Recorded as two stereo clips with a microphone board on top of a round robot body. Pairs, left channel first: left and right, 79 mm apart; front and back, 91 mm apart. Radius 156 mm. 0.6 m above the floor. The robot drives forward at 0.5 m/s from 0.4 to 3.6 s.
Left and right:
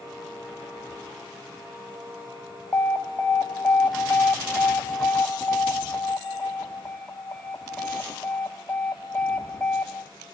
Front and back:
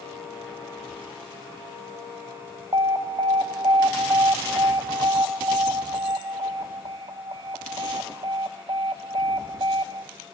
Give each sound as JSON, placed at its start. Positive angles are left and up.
{"t": 2.7, "sound": "an alarm", "azimuth_deg": 145, "distance_m": 1.3}